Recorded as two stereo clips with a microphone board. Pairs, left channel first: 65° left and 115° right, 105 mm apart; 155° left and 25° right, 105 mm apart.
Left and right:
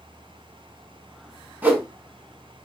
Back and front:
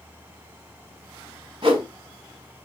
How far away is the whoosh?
About 1.1 m.